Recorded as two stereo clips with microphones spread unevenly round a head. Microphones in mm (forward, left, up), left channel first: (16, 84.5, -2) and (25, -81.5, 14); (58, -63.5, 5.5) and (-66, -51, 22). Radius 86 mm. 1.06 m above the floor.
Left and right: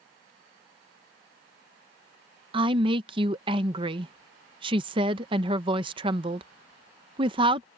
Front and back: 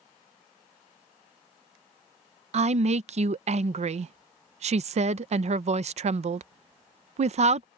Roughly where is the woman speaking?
Behind right.